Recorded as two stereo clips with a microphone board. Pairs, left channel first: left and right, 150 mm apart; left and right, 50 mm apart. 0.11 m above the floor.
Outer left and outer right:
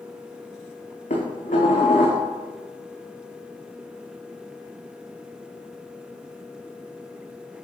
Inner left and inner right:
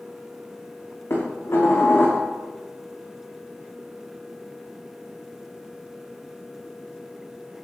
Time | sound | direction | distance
1.1 | dishes clattering | 70° left (ahead or behind) | 5 m